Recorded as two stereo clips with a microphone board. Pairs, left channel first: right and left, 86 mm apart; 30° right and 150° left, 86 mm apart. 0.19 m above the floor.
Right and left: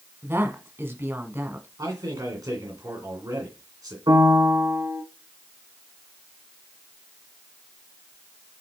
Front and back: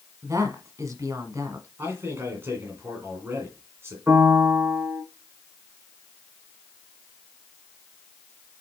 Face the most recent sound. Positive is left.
turn(degrees=85)